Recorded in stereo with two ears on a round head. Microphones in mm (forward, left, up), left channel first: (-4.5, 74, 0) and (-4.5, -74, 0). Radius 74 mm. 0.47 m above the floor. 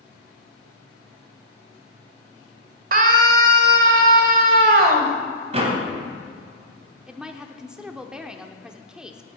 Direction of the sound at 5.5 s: 40° right (ahead or behind).